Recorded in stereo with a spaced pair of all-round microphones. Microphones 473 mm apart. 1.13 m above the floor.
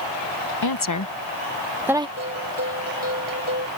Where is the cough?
No cough in this recording.